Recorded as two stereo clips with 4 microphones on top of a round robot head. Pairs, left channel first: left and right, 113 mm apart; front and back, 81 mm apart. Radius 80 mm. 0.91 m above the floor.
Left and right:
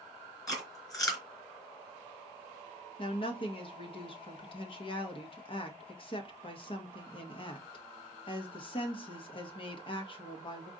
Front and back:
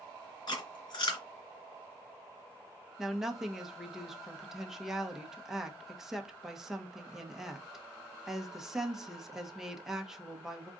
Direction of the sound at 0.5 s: 30° left.